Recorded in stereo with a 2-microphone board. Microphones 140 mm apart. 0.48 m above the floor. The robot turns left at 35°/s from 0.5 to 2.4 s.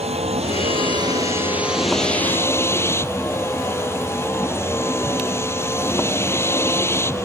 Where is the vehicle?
130° right; by 7.2 s 165° left.